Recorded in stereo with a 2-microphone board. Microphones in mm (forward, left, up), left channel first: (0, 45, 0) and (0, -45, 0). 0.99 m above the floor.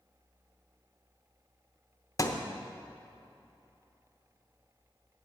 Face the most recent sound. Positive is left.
turn(degrees=40)  # may be behind; listen again after turning